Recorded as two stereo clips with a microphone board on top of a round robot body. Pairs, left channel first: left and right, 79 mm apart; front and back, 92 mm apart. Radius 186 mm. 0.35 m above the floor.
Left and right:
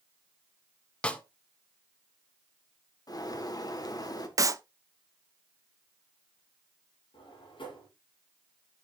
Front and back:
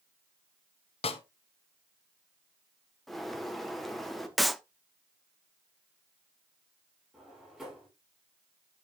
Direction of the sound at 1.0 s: 10° left.